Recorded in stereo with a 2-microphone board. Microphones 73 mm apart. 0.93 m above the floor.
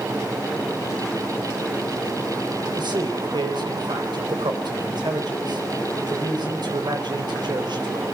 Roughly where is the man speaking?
Right.